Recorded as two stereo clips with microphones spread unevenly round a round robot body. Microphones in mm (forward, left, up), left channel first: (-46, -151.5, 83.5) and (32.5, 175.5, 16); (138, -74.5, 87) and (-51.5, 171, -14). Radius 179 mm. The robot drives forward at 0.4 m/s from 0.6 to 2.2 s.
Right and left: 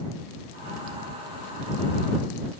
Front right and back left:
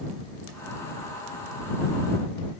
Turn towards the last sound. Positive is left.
No sound to turn to.